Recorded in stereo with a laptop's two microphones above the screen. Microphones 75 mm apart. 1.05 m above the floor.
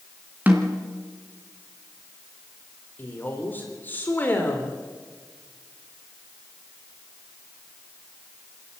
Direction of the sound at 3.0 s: 25° left (ahead or behind).